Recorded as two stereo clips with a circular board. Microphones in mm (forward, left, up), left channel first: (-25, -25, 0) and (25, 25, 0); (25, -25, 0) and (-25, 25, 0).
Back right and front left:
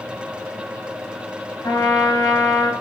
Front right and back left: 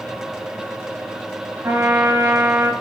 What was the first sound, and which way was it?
A trumpet, 165° right.